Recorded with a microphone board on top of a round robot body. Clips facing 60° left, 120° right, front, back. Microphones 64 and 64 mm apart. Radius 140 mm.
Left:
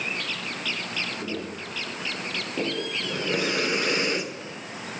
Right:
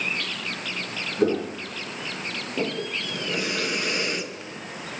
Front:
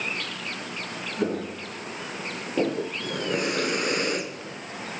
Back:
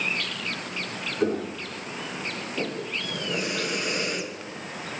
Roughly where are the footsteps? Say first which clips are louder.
Right 9 dB, back 2 dB; right.